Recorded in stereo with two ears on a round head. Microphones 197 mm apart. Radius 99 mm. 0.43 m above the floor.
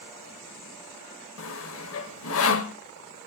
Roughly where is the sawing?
Left.